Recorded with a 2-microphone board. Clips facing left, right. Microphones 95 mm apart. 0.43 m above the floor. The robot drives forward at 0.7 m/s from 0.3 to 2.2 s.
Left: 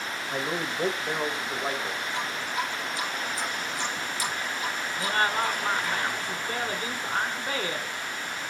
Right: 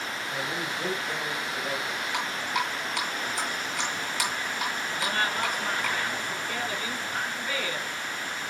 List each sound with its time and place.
0.3 s a man speaking: 50° left (ahead or behind), 1.9 m; by 2.0 s 55° left (ahead or behind), 1.7 m
2.1 s dripping: 75° right (ahead or behind), 3 m
5.0 s a woman speaking: 40° left (ahead or behind), 1.4 m